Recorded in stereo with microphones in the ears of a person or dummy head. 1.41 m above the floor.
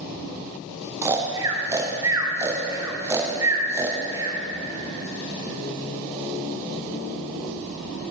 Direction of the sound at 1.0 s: 15° right (ahead or behind).